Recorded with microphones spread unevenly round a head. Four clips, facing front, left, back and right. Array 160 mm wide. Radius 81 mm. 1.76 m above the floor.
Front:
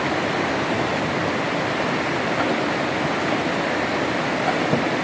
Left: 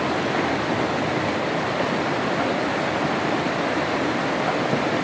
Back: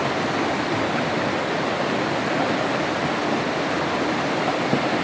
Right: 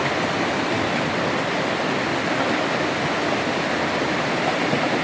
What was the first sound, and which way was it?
Only background noise.